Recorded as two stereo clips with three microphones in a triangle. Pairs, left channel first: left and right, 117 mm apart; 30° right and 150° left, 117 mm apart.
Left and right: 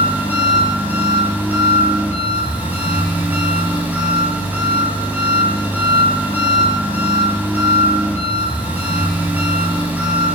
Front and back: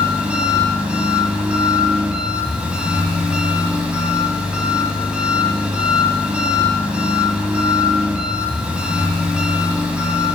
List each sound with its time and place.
0.0 s an engine running: 140° right, 0.9 m